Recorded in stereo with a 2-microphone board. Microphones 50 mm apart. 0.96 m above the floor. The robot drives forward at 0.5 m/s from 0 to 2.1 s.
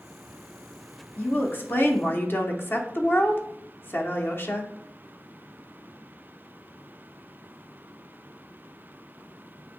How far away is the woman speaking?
About 0.7 m.